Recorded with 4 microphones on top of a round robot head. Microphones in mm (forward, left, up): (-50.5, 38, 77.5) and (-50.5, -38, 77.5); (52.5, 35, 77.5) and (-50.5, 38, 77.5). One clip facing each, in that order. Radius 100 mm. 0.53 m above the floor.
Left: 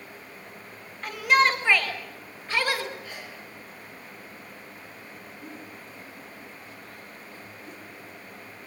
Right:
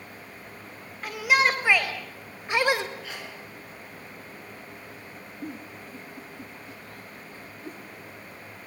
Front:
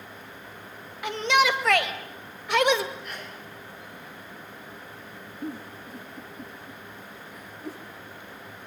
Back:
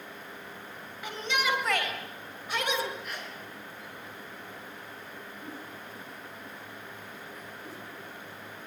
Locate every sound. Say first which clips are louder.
1.0 s a shout: left 2 dB, front 8 dB; 5° right, 4 m; by 2.9 s 20° right, 3 m
3.0 s a sneeze: right 2 dB, front 1 dB; 95° right, 6.5 m
5.4 s a giggle: right 6 dB, front 10 dB; 35° right, 3.5 m